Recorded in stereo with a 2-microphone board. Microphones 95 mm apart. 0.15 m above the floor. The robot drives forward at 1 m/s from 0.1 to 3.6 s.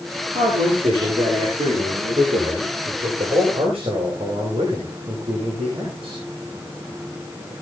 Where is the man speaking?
80° right, 9 m; by 6.2 s 70° right (ahead or behind), 9.5 m.